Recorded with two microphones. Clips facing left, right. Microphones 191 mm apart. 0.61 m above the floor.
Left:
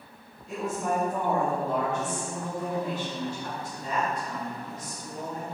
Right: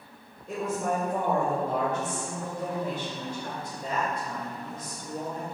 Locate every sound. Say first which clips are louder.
0.5 s a woman speaking: even; 55° right (ahead or behind), 2.5 m